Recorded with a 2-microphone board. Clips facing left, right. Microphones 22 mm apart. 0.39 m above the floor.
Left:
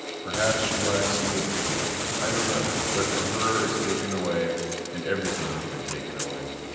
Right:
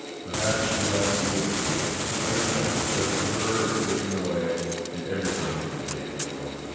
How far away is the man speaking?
About 2 m.